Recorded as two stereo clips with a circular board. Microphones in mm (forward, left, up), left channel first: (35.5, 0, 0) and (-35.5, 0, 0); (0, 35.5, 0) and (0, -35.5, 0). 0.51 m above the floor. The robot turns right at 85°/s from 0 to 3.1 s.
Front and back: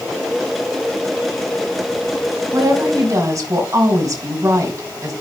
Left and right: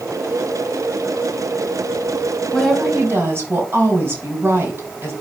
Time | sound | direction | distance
2.5 | a woman speaking | 170° left | 4 m